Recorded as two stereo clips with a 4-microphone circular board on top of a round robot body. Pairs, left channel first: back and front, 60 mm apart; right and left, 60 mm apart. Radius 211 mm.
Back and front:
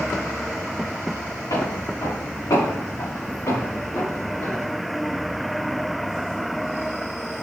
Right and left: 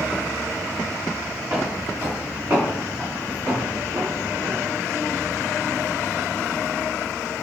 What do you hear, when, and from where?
1.5 s footsteps: 150° left, 4.5 m; by 4.7 s 145° left, 6.5 m